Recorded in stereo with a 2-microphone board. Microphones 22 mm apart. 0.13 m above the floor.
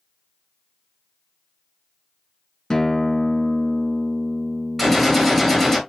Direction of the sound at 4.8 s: 15° left (ahead or behind).